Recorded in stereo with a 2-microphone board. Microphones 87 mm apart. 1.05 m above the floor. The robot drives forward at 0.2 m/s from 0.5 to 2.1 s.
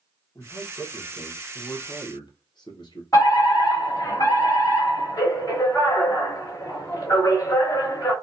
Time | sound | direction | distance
0.3 | a man speaking | 45° left (ahead or behind) | 1.0 m
3.1 | a fire alarm | 40° left (ahead or behind) | 1.6 m